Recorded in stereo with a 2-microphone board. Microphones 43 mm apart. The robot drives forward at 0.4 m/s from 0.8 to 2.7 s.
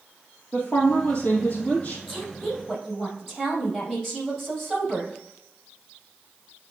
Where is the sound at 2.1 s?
Centre (ahead or behind), 3 m.